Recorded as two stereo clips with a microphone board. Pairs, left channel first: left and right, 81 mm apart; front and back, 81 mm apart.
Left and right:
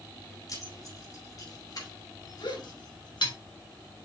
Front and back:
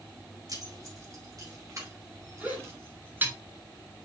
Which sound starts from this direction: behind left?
Keys jangling, at 0.5 s.